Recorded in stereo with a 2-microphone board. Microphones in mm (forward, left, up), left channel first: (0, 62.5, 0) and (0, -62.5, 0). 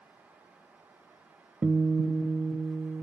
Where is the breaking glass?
No breaking glass in this recording.